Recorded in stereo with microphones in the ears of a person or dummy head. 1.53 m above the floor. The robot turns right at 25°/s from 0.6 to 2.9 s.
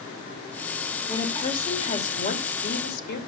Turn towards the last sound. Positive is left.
turn(degrees=60)